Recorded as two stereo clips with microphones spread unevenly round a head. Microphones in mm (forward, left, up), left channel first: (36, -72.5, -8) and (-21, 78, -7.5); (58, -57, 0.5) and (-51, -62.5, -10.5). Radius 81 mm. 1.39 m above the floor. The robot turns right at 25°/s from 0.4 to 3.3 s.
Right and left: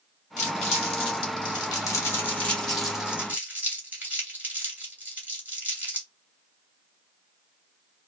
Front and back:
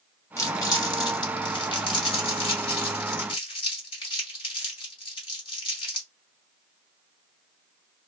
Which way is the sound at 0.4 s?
40° right.